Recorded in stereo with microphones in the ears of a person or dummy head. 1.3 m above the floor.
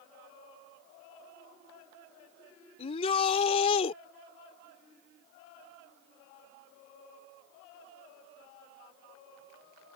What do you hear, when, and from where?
2.8 s a shout: 35° left (ahead or behind)